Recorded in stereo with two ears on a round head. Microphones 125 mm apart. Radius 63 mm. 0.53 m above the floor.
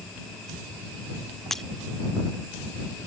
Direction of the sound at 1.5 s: 5° left (ahead or behind).